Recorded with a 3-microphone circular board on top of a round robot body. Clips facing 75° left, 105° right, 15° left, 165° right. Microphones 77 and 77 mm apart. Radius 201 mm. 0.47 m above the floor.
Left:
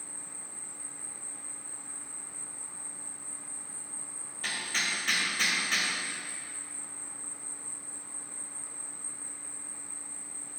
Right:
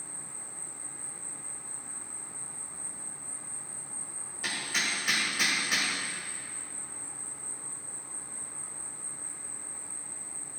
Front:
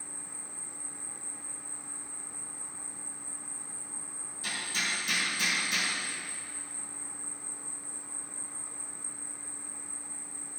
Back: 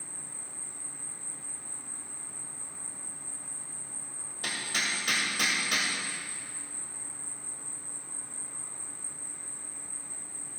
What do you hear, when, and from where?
0.0 s an insect: 50° right, 2 m
4.4 s hammering: 170° left, 2 m